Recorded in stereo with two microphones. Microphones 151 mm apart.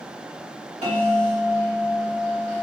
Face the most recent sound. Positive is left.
turn(degrees=-50)  # may be behind; listen again after turning